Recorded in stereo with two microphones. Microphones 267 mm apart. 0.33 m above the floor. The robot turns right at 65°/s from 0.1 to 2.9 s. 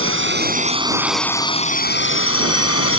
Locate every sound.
0.0 s a drone: 55° right (ahead or behind); by 3.0 s 60° left (ahead or behind)